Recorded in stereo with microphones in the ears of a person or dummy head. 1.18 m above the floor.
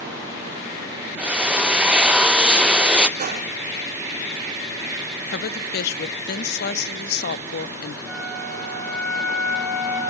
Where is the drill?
Centre (ahead or behind), 0.6 m.